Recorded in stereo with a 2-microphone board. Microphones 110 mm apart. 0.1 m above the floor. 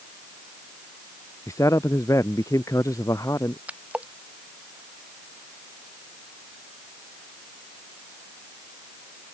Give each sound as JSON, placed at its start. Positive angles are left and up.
{"t": 1.5, "sound": "a man speaking", "side_deg": 30}
{"t": 3.7, "sound": "a splash", "side_deg": -10}